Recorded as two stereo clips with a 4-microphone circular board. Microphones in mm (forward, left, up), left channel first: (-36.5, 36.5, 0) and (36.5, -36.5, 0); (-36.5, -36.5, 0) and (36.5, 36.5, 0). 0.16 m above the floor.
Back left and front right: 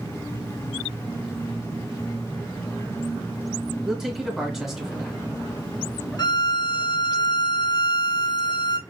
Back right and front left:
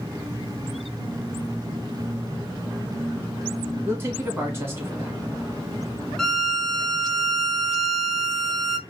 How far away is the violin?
About 0.7 m.